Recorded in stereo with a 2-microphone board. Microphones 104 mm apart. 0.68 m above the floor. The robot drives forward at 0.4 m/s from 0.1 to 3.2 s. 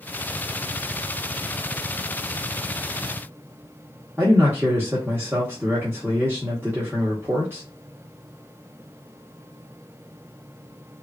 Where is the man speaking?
20° right (ahead or behind), 0.9 m.